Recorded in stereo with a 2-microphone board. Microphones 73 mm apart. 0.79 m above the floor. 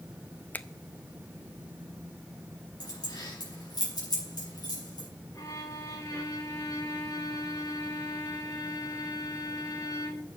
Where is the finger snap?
25° left (ahead or behind), 0.6 m.